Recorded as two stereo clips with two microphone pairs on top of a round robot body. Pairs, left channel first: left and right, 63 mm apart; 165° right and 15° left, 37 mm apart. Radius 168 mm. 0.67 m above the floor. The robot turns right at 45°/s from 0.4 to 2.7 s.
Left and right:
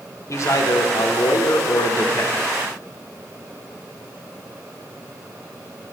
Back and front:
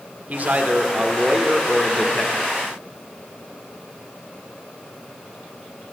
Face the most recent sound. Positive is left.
turn(degrees=160)